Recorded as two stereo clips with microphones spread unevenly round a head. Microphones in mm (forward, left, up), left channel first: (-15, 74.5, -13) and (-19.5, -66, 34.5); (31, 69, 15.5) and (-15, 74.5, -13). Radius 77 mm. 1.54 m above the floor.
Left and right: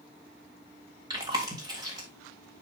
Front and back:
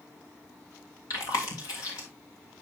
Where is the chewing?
25° right, 2.5 m.